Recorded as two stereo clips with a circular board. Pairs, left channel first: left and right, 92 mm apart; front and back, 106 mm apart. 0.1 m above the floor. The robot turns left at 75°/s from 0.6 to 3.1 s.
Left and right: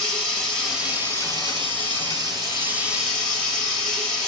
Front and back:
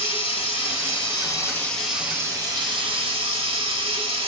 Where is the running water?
Straight ahead, 1.7 m; by 4.3 s 175° left, 1.7 m.